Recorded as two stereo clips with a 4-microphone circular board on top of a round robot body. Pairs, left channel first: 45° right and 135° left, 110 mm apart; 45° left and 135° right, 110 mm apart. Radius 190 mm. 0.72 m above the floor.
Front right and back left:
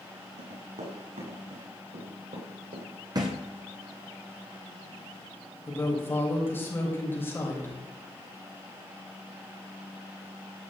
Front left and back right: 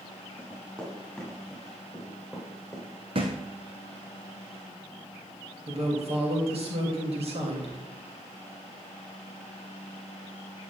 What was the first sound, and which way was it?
Running footsteps, 125° left.